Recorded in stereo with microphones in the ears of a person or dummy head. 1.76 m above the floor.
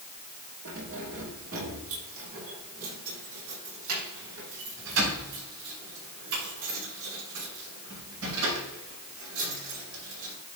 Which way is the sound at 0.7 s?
75° right (ahead or behind).